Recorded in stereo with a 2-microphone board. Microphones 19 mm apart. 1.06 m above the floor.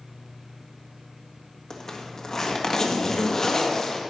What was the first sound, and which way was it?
A zipper, 30° left (ahead or behind).